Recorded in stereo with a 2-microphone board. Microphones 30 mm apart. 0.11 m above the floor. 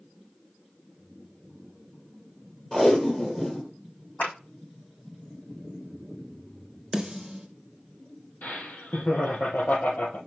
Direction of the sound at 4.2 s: 75° left (ahead or behind).